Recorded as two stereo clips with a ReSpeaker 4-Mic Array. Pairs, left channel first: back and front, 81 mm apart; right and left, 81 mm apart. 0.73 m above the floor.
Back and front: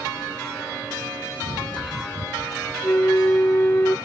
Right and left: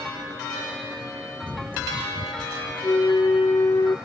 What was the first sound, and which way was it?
Running footsteps, 165° left.